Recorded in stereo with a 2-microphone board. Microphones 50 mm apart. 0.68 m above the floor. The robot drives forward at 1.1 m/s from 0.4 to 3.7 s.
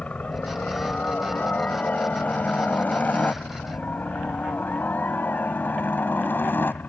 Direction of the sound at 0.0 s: 30° left (ahead or behind).